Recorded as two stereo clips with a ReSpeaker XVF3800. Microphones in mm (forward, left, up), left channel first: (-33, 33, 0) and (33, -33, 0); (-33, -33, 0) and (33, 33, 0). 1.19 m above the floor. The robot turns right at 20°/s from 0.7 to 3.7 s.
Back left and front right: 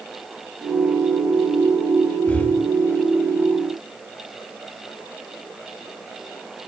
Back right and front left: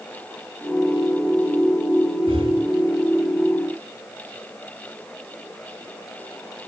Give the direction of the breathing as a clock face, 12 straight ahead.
10 o'clock.